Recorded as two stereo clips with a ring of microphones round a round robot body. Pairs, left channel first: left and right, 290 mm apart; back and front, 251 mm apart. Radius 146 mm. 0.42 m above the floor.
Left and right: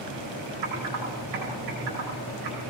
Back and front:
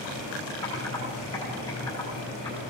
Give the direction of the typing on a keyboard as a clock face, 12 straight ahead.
3 o'clock.